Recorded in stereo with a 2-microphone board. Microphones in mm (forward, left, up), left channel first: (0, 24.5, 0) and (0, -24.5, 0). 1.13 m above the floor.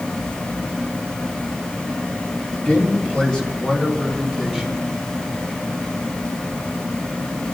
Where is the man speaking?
30° left (ahead or behind), 2 m; by 4.8 s 10° left (ahead or behind), 3 m.